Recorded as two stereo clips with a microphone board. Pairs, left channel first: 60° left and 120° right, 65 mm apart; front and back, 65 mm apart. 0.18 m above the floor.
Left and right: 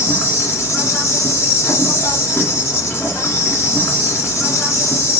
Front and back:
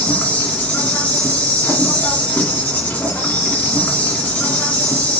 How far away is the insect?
About 1.4 m.